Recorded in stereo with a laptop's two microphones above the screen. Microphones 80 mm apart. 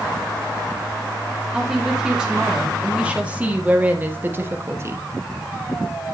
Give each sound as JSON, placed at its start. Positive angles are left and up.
{"t": 1.5, "sound": "a woman speaking", "side_deg": -5, "distance_m": 3.0}